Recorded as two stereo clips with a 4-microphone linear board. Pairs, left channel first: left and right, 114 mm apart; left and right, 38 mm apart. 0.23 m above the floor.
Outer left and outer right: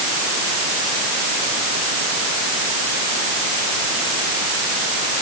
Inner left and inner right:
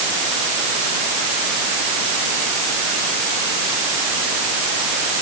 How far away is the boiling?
No boiling in this recording.